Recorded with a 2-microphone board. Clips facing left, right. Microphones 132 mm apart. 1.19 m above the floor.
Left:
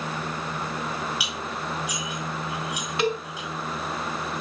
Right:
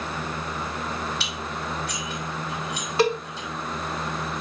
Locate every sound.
1.2 s dishes clattering: 10° left (ahead or behind), 5 m
3.0 s a cowbell: 35° right (ahead or behind), 1.5 m